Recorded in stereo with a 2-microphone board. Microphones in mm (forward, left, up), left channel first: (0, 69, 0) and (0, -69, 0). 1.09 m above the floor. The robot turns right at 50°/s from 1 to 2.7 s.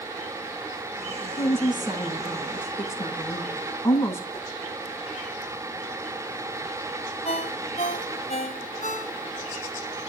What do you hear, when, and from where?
1.4 s a woman speaking: 50° right, 7.5 m; by 4.2 s 20° left, 7.5 m
4.3 s a whoosh: 15° left (ahead or behind), 9 m
7.2 s a ringtone: 55° left (ahead or behind), 2.5 m